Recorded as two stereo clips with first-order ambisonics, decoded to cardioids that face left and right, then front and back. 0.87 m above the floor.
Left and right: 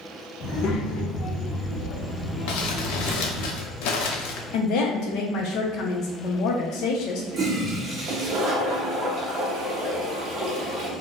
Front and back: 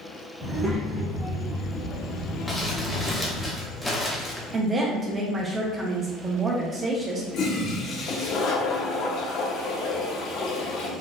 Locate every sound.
0.4 s a child speaking: 120° left, 1.0 m; by 3.5 s 25° left, 1.2 m
2.5 s crumpling: 85° left, 0.6 m
4.5 s a woman speaking: 110° left, 0.7 m
7.3 s a toilet flushing: 40° right, 0.7 m